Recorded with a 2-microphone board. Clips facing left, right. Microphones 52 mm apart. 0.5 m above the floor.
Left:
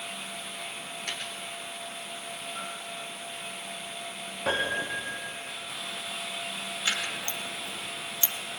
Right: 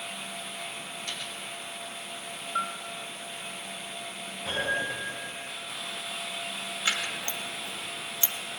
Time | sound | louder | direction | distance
1.1 | a dropped coin | left 3 dB | 55° left (ahead or behind) | 2.5 m
2.5 | a bell | right 11 dB | 65° right (ahead or behind) | 2 m
4.5 | a piano | left 1 dB | 75° left (ahead or behind) | 4.5 m
6.8 | scissors | right 1 dB | 25° right (ahead or behind) | 3 m